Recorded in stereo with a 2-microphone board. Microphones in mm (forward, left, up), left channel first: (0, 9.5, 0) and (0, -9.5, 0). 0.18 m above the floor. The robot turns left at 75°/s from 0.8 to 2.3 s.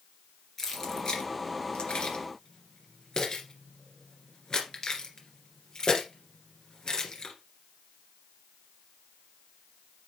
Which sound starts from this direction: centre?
Keys jangling, at 0.6 s.